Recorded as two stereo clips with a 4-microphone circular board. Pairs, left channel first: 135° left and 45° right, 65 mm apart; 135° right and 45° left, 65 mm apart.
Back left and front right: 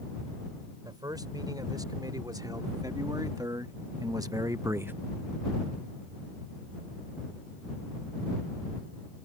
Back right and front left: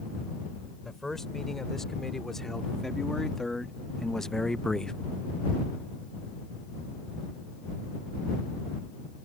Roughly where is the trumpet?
No trumpet in this recording.